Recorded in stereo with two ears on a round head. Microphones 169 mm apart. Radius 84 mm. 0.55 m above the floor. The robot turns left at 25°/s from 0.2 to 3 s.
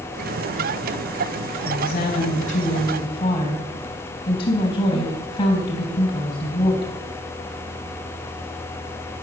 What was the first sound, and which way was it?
A woman speaking, 55° left.